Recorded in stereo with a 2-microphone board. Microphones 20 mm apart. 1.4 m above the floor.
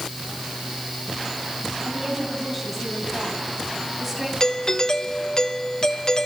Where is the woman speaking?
5° right (ahead or behind), 9.5 m.